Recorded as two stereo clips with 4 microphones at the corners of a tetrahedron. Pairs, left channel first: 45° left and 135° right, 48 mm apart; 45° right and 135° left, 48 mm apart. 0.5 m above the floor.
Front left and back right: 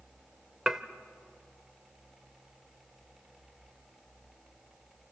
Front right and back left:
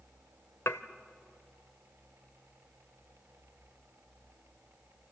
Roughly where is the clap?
I don't hear a clap.